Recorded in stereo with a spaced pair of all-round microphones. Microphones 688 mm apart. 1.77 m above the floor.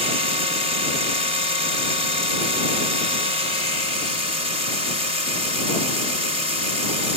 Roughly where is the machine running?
Left.